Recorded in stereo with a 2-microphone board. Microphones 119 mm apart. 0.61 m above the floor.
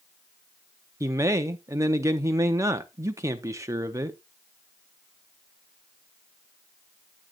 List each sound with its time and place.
1.0 s a man speaking: 25° right (ahead or behind), 0.6 m